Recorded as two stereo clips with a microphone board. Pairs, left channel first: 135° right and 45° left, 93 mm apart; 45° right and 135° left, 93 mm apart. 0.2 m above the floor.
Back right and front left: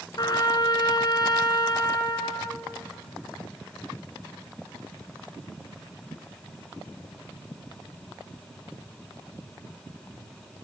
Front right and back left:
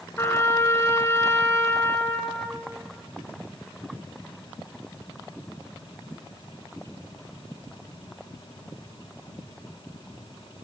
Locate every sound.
0.2 s a trumpet: 105° right, 1.5 m